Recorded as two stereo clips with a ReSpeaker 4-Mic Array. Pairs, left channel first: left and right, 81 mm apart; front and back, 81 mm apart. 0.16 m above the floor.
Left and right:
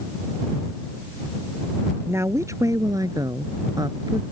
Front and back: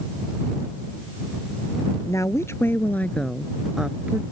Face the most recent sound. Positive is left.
turn(degrees=-110)